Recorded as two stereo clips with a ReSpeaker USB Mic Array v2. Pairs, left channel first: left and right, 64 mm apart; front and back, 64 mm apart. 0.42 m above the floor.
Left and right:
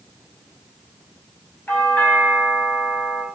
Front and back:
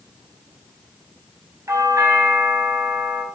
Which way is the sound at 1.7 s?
150° left.